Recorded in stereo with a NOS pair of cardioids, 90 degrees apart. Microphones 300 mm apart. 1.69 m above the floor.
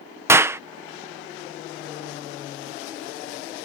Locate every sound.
0.3 s a clap: 10° right